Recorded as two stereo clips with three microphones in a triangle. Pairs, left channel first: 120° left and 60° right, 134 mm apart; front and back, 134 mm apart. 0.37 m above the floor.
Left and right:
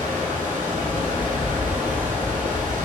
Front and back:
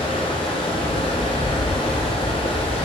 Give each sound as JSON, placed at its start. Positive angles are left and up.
{"t": 0.0, "sound": "running water", "azimuth_deg": -45, "distance_m": 2.5}